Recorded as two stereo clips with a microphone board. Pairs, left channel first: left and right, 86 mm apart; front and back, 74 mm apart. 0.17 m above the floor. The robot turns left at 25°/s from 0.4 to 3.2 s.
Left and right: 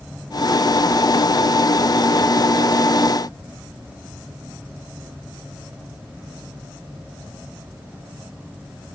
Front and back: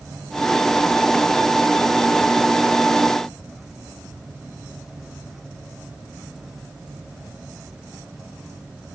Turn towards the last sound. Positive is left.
No sound to turn to.